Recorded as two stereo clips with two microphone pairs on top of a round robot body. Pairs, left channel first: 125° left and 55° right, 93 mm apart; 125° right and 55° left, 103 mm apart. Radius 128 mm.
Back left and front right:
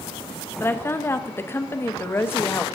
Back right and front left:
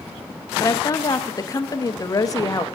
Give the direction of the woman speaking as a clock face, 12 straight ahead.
6 o'clock.